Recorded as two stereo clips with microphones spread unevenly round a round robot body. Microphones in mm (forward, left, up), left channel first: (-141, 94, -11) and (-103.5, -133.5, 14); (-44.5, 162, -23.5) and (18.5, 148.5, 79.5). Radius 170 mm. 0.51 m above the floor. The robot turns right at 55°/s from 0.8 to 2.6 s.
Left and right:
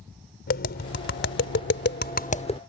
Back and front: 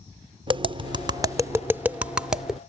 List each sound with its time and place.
0.5 s tapping: 60° left; by 2.6 s 160° left